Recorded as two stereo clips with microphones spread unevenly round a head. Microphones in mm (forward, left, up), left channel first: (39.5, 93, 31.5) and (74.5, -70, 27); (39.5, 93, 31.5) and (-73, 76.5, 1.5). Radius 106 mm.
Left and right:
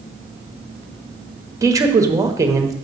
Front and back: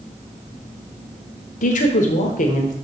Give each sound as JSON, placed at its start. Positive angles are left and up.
{"t": 1.6, "sound": "a woman speaking", "azimuth_deg": -10, "distance_m": 1.1}